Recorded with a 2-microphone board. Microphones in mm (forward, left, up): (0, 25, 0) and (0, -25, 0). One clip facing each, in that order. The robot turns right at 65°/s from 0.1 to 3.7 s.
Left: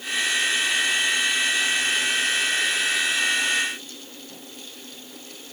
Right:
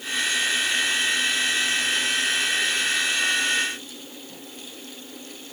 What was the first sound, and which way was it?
Only background noise.